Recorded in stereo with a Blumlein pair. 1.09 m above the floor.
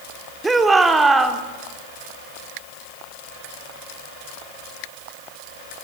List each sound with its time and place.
0.4 s a shout: 10° right, 2.5 m